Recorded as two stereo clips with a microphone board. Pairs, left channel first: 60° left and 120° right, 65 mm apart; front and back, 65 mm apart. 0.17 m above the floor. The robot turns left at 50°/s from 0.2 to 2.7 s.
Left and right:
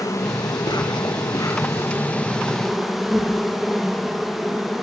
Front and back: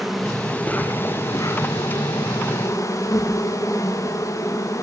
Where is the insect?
95° left, 6.5 m; by 4.8 s 30° right, 6.5 m.